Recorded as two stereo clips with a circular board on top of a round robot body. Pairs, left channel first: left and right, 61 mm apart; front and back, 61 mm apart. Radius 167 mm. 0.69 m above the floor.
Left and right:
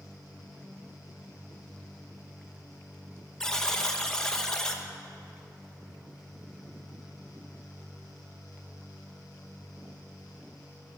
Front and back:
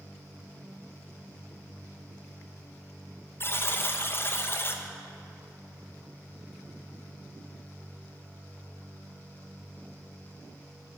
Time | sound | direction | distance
3.4 | a buzzer | 15° left | 1.1 m